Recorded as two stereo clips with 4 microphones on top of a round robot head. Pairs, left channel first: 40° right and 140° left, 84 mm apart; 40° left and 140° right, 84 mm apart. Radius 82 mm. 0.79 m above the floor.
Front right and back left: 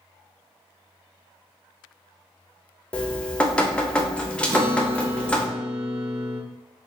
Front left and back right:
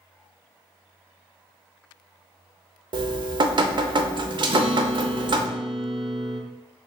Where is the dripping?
120° right, 0.6 m.